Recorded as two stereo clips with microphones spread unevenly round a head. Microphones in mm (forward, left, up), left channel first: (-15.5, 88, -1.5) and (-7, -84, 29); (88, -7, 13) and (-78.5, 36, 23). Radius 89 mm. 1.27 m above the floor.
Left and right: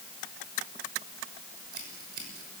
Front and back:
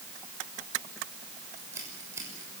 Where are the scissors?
120° right, 6.5 m.